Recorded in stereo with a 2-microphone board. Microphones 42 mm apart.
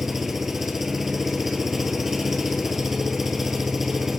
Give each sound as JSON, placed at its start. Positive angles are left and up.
{"t": 0.0, "sound": "an engine running", "side_deg": -5, "distance_m": 1.1}